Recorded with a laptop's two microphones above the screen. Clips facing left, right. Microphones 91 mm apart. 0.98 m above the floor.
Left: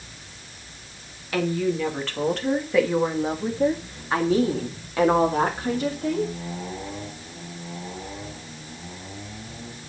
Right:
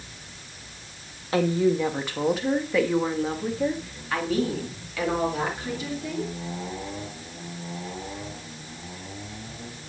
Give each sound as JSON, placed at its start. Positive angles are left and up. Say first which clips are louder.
{"t": 1.3, "sound": "a woman speaking", "louder": "right 2 dB", "side_deg": -30, "distance_m": 1.4}